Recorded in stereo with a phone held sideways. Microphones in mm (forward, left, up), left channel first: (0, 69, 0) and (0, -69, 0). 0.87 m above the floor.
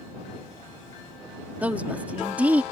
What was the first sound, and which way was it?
A woman speaking, 10° right (ahead or behind).